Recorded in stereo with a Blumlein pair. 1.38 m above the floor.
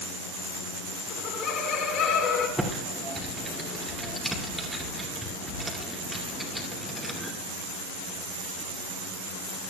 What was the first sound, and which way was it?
Laughter, 35° left.